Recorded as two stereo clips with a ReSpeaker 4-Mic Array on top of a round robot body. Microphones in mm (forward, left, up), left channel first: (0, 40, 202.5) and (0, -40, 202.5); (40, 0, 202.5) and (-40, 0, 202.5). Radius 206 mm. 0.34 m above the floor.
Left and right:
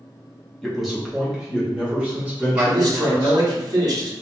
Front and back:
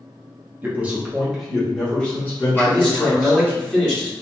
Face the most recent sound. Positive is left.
turn(degrees=-80)